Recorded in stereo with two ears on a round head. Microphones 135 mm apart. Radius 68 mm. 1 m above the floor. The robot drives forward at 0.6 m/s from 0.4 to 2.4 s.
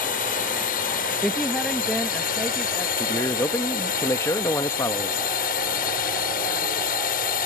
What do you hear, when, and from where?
0.0 s a drone: 60° left (ahead or behind)
1.2 s a woman speaking: centre (ahead or behind)
3.0 s a man speaking: 20° left (ahead or behind)